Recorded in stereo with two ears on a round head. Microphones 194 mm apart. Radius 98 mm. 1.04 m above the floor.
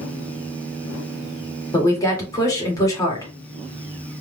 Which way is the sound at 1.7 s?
15° left (ahead or behind).